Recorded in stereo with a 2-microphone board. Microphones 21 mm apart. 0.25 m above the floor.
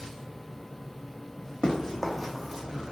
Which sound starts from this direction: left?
Running footsteps, at 1.6 s.